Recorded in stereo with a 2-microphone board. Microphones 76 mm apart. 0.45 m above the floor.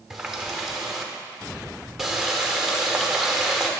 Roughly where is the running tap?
Centre.